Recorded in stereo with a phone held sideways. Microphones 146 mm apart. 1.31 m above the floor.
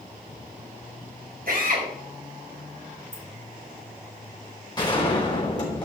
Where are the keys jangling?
50° right (ahead or behind), 3 m.